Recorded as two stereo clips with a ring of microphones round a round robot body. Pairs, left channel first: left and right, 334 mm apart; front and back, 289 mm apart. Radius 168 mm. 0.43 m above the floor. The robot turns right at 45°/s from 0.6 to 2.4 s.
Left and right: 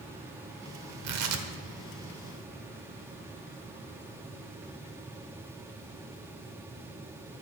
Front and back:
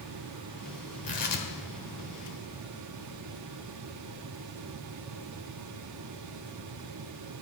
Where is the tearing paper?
65° right, 1.3 m; by 1.5 s 45° right, 1.3 m.